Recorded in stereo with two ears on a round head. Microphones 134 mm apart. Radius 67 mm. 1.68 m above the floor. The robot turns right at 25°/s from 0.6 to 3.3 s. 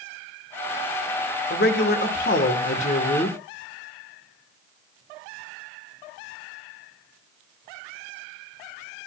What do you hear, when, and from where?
1.5 s a man speaking: 90° left, 1.5 m; by 3.4 s 135° left, 1.5 m